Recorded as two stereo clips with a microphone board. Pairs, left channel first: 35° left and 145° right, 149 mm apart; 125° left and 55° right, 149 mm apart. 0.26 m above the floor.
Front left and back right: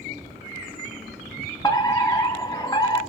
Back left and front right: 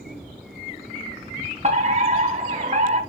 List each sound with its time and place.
1.6 s a fire alarm: 30° right, 3.5 m